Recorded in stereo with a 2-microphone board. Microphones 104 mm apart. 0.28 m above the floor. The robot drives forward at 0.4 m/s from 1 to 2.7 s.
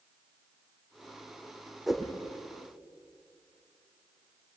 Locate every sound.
1.9 s a whoosh: centre (ahead or behind), 3 m